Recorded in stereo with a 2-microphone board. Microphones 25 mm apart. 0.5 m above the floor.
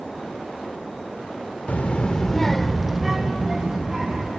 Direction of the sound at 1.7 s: 65° left (ahead or behind).